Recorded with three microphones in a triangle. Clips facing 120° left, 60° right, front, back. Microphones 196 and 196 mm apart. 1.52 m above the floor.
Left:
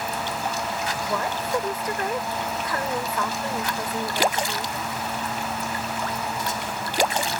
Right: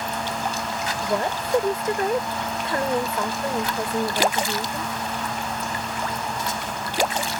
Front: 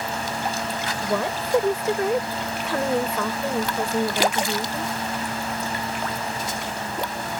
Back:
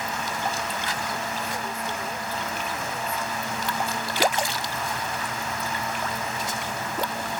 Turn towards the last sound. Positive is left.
turn(degrees=5)